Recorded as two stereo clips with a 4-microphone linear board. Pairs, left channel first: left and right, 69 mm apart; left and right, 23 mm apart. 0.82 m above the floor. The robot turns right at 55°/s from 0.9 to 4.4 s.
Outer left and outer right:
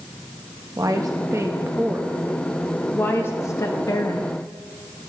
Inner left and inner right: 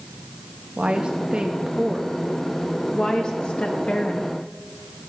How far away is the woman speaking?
About 0.5 m.